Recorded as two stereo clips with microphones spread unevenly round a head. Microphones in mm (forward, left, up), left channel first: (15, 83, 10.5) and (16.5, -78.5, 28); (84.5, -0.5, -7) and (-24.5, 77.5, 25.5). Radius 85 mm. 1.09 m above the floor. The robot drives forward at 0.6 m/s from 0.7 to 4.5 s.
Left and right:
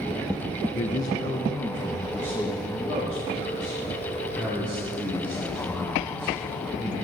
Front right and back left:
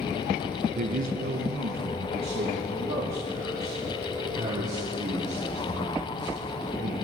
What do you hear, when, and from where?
0.8 s a man speaking: 130° left, 0.5 m; by 7.0 s 175° left, 2.5 m